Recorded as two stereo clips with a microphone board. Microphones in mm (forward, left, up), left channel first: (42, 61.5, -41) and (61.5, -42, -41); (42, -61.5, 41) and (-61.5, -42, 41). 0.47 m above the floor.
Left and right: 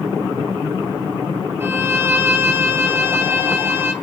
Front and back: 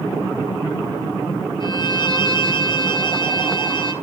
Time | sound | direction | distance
1.6 | a violin | 20° right | 1.5 m